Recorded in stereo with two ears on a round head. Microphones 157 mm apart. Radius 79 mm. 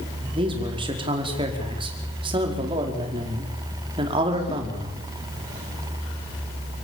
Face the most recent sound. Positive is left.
turn(degrees=-30)  # may be behind; listen again after turning